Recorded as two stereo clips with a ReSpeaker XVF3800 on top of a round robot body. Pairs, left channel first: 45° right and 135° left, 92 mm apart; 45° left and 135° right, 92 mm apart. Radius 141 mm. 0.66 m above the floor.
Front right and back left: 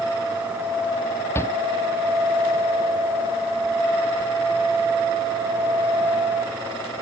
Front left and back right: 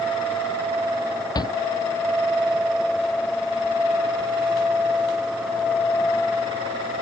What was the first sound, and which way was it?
A shout, 10° left.